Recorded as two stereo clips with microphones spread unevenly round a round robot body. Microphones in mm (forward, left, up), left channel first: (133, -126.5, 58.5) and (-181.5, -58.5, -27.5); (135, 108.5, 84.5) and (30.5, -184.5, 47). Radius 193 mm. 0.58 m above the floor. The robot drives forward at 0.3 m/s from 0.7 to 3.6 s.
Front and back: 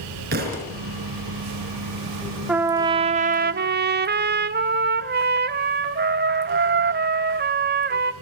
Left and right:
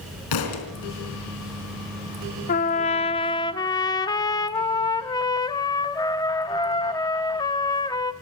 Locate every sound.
0.3 s a thud: 100° left, 4 m
2.5 s a trumpet: 120° left, 0.7 m; by 8.1 s 150° left, 0.8 m